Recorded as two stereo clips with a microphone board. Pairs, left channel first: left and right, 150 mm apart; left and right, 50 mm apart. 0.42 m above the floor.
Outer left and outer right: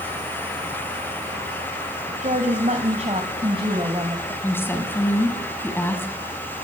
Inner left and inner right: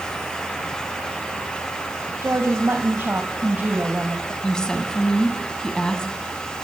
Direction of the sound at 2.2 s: 60° right (ahead or behind).